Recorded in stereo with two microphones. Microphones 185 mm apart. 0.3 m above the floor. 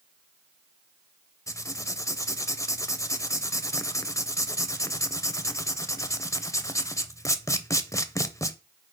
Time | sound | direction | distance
1.5 | writing | 15° left (ahead or behind) | 0.6 m